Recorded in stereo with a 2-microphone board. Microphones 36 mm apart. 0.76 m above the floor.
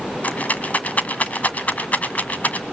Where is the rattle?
45° left (ahead or behind), 1.6 m.